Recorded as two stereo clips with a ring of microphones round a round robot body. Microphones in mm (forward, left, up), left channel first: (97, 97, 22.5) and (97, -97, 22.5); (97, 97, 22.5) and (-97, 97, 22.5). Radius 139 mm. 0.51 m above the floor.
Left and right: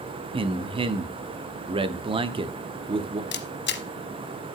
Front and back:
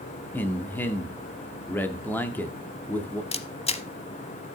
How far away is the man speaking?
About 0.8 m.